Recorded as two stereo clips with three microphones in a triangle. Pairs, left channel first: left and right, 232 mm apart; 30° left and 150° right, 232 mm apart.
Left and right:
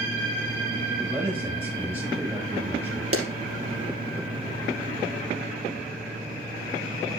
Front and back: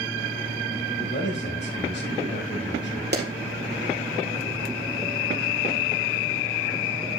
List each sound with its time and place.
1.0 s a man speaking: 10° right, 6.5 m
3.1 s a clap: 105° right, 3 m